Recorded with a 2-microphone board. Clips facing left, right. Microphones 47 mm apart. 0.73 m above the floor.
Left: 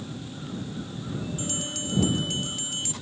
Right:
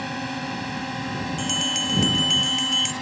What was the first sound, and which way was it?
A drone, 75° right (ahead or behind).